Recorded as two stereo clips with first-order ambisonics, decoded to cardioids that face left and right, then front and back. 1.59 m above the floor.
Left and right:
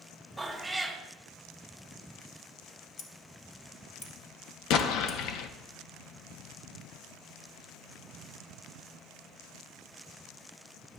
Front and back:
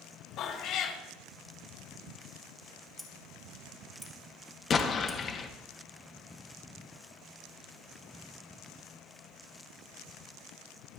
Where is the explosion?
65° left, 0.9 m.